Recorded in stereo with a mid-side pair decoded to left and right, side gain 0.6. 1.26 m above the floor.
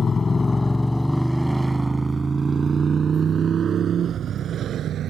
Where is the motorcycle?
30° left; by 5.1 s 50° right.